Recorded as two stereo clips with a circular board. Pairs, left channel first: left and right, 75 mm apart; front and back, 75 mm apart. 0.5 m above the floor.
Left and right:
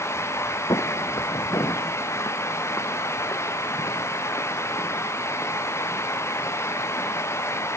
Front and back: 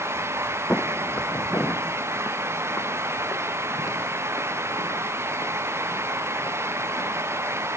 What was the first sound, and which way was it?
Footsteps, 70° left.